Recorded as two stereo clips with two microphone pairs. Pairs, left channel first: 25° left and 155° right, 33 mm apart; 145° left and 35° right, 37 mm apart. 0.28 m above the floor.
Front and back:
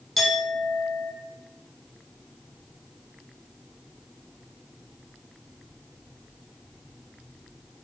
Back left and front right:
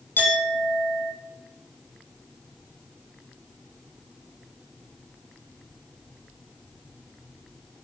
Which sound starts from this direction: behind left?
A clink, at 0.2 s.